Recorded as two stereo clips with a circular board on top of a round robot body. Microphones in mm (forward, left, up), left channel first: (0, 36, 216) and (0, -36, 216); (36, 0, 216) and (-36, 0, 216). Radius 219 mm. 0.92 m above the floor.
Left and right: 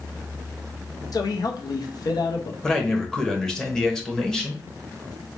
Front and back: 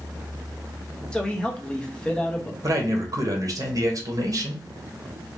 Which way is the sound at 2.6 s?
170° left.